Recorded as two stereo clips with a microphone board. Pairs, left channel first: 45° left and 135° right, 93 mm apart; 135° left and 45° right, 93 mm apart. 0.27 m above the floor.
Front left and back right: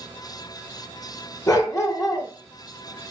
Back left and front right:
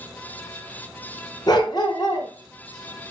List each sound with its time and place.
1.5 s a dog barking: 95° left, 1.2 m